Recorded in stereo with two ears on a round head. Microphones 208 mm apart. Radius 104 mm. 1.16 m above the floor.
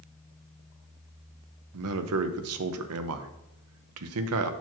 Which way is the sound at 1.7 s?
70° right (ahead or behind).